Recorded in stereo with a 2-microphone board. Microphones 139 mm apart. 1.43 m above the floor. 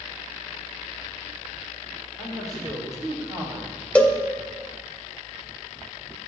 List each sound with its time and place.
2.2 s a man speaking: 25° right (ahead or behind), 6 m; by 4.0 s 15° right (ahead or behind), 3.5 m
4.0 s a cowbell: 10° left (ahead or behind), 1.2 m